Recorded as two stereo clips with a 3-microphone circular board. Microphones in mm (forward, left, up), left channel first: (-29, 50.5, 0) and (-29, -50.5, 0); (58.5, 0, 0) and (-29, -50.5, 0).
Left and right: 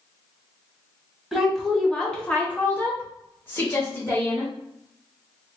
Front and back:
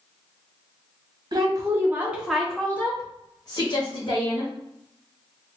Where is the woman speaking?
Straight behind, 1.0 m; by 4.5 s 25° left, 1.5 m.